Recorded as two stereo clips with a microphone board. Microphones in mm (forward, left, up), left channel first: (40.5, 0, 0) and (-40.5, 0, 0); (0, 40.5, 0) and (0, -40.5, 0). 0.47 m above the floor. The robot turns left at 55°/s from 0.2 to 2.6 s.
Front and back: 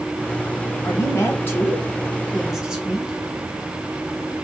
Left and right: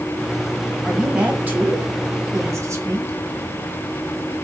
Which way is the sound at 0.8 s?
5° right.